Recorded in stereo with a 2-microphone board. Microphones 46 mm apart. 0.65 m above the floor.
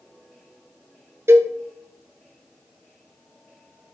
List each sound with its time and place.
1.3 s a cowbell: 70° right (ahead or behind), 0.7 m